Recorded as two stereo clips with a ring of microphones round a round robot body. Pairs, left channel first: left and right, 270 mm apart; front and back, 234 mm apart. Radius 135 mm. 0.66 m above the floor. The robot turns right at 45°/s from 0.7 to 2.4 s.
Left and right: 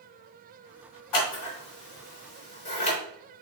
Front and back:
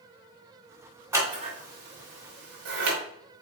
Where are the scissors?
100° left, 3.5 m; by 3.0 s 155° left, 3.5 m.